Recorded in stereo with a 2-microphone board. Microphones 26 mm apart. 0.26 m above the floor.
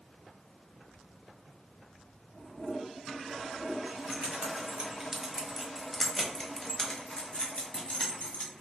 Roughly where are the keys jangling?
Right.